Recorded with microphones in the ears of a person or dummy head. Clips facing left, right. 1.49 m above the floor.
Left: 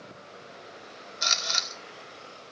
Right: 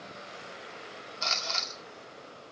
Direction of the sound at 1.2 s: 20° left (ahead or behind).